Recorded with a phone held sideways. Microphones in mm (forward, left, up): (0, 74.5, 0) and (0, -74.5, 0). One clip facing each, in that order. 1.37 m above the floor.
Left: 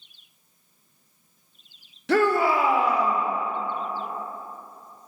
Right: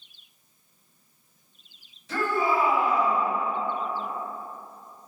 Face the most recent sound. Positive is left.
turn(degrees=75)  # may be behind; listen again after turning